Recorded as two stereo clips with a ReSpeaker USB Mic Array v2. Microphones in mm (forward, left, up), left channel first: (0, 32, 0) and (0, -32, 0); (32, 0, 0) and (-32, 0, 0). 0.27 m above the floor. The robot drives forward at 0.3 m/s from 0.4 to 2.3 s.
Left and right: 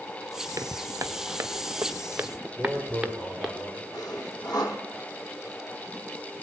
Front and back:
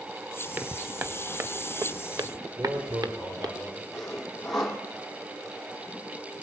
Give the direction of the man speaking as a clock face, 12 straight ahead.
6 o'clock.